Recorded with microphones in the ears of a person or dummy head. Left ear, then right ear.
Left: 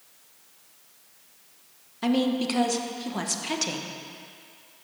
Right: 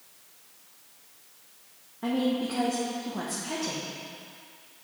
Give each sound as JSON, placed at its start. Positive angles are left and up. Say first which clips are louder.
{"t": 2.0, "sound": "a woman speaking", "louder": "left 3 dB", "side_deg": 70, "distance_m": 1.1}